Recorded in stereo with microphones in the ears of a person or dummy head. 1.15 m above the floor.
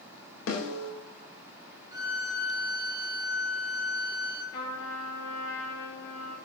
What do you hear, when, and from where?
0.5 s a snare drum: 85° left, 3.5 m
1.9 s a violin: 20° right (ahead or behind), 1.4 m
4.5 s a trumpet: 65° left (ahead or behind), 7 m